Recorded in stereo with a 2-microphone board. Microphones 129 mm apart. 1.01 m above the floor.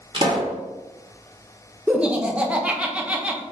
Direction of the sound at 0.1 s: 40° right (ahead or behind).